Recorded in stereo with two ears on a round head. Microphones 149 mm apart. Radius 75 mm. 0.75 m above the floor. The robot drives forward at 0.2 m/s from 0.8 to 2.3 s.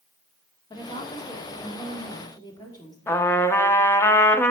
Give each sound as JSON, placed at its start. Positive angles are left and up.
{"t": 0.7, "sound": "a woman speaking", "side_deg": 30, "distance_m": 1.9}
{"t": 3.1, "sound": "a trumpet", "side_deg": 15, "distance_m": 0.7}